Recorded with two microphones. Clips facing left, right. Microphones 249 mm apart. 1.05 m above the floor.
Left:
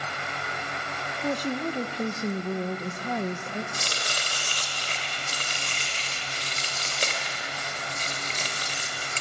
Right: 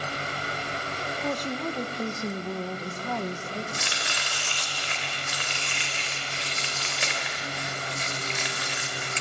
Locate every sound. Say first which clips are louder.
1.2 s a woman speaking: left 3 dB; 10° left (ahead or behind), 0.7 m
3.7 s chopping: left 1 dB; 40° left (ahead or behind), 3 m